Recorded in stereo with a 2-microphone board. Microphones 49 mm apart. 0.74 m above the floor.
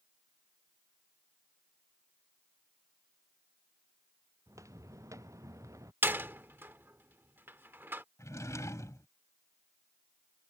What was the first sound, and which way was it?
Footsteps, 75° right (ahead or behind).